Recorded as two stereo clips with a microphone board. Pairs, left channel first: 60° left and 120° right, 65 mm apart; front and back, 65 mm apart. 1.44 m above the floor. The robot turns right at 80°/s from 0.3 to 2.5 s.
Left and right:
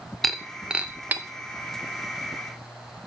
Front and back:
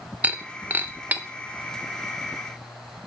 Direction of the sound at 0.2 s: 145° left.